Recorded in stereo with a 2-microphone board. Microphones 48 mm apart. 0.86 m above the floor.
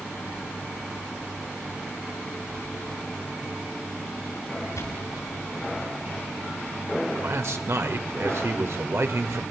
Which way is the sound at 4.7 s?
85° left.